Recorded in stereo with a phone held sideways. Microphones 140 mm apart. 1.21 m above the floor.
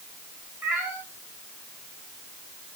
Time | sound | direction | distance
0.6 | a cat meowing | 15° right (ahead or behind) | 6 m